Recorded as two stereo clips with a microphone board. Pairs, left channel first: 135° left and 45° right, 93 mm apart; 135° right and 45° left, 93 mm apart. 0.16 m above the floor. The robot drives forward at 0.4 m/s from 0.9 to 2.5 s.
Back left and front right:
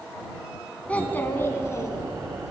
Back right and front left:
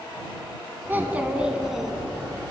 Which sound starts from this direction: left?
A child speaking, at 0.9 s.